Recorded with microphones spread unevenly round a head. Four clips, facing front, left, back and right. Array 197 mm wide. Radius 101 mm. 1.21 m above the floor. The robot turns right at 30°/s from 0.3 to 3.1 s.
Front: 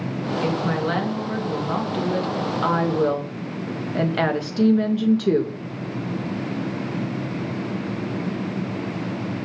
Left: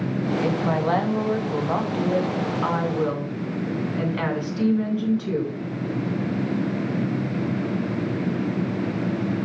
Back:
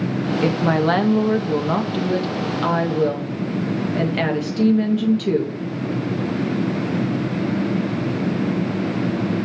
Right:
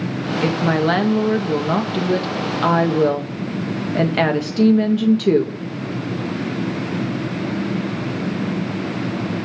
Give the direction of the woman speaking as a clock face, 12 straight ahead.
5 o'clock.